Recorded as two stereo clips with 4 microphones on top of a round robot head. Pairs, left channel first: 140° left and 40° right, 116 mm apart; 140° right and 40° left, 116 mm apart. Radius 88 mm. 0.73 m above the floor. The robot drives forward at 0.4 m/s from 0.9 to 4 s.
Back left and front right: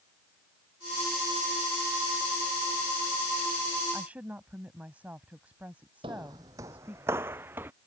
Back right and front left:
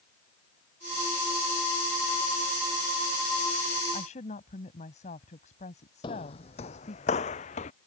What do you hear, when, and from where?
3.9 s a woman speaking: 120° right
6.0 s footsteps: 90° right; by 7.7 s 115° right